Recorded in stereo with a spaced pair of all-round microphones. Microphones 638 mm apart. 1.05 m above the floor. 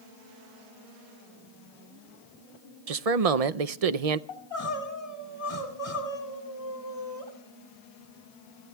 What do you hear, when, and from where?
2.9 s a man speaking: 75° right (ahead or behind), 0.7 m
4.3 s crying: 65° left (ahead or behind), 3 m